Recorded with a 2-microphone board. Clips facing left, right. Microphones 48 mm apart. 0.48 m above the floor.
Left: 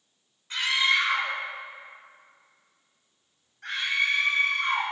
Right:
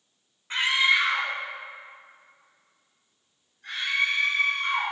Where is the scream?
30° right (ahead or behind), 2 m; by 4.8 s 70° left (ahead or behind), 5.5 m.